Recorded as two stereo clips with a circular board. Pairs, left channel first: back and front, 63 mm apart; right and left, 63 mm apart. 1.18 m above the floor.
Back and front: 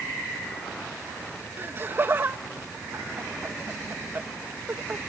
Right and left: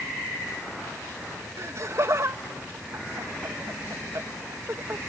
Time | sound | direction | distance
1.6 | laughter | 50° left | ?